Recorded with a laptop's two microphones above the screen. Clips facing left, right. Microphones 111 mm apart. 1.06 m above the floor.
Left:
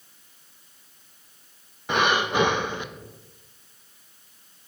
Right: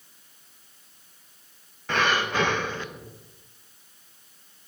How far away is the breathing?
About 0.6 m.